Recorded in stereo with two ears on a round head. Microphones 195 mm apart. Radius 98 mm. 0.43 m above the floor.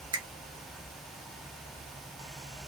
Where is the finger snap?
20° right (ahead or behind), 1.1 m.